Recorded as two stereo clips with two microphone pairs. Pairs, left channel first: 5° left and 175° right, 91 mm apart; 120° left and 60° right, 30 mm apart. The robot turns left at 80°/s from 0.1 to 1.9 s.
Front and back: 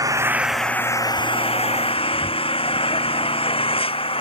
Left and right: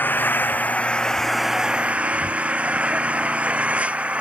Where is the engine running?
130° left; by 4.2 s 15° right.